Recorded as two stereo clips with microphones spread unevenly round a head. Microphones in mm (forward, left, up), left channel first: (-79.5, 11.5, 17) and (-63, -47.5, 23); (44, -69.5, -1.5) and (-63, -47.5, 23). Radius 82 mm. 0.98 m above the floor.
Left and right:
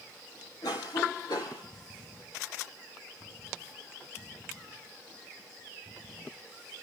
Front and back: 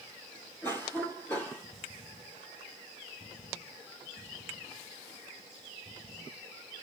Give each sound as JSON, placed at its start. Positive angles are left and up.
{"t": 0.6, "sound": "a cough", "azimuth_deg": 65, "distance_m": 2.5}